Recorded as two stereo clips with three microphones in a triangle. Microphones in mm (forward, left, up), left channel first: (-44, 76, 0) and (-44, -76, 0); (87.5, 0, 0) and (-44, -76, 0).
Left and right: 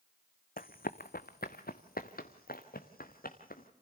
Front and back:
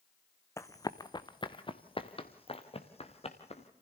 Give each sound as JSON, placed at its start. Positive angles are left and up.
{"t": 0.6, "sound": "running footsteps", "azimuth_deg": 100, "distance_m": 0.7}